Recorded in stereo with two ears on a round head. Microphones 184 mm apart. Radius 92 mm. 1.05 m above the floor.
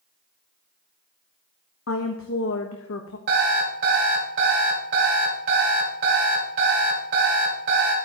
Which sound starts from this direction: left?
A woman speaking, at 1.9 s.